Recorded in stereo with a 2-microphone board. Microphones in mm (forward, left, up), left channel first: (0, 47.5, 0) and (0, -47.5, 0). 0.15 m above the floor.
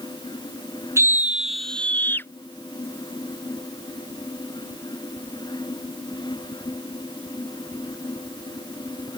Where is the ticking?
I don't hear ticking.